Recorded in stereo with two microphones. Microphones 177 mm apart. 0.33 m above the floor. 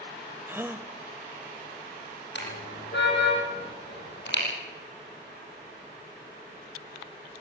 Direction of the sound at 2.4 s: 85° left.